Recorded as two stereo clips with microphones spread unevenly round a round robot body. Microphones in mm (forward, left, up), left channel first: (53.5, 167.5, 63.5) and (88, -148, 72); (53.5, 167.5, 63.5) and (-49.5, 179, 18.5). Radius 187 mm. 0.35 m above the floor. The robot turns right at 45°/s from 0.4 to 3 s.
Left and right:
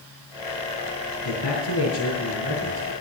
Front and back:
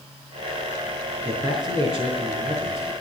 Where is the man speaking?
110° left, 5 m; by 2.9 s 175° right, 5 m.